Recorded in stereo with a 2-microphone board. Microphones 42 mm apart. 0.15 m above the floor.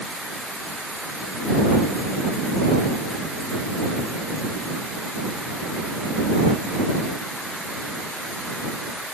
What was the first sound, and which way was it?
Only background noise.